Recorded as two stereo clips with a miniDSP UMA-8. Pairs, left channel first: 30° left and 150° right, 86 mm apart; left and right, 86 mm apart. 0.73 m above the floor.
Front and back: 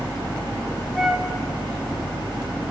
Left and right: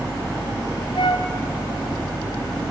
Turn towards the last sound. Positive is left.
turn(degrees=120)